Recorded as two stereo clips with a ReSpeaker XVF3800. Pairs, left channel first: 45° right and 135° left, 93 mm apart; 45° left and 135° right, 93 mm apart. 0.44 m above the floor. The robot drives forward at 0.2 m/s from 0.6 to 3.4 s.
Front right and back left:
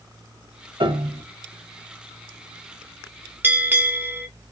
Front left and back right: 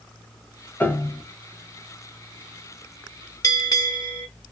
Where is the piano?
115° left, 0.7 m; by 1.2 s 120° left, 0.8 m.